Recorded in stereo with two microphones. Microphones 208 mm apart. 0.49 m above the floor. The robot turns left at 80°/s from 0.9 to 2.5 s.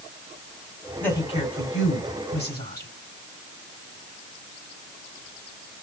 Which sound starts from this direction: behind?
A woman speaking, at 1.0 s.